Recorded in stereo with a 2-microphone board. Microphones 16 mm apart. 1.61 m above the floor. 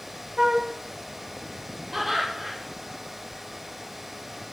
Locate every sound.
0.4 s a flute: 35° right (ahead or behind), 0.6 m
1.9 s laughter: 5° right (ahead or behind), 3.5 m